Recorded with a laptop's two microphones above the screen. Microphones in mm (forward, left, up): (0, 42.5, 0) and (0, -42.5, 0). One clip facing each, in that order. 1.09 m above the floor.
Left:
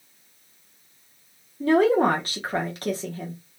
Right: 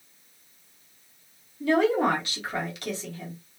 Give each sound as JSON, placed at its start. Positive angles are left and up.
{"t": 1.6, "sound": "a woman speaking", "side_deg": 45, "distance_m": 1.0}